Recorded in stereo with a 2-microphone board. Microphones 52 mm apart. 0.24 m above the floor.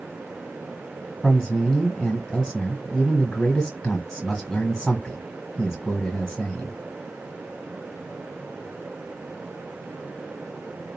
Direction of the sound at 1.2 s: 10° left (ahead or behind).